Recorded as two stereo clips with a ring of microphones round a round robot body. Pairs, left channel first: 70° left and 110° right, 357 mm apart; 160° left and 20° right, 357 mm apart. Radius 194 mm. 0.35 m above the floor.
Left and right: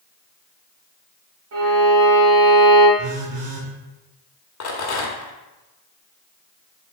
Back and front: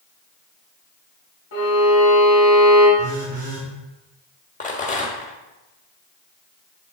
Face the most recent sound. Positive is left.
turn(degrees=95)